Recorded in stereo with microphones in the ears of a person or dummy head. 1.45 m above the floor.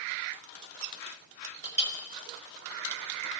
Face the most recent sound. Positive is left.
turn(degrees=-45)  # may be behind; listen again after turning